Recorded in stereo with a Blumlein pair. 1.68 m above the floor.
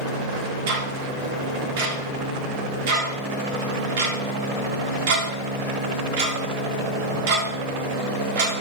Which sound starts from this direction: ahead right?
Ticking, at 0.7 s.